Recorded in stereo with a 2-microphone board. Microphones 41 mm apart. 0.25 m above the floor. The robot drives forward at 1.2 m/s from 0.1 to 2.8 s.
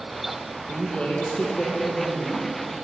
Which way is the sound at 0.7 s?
25° left (ahead or behind).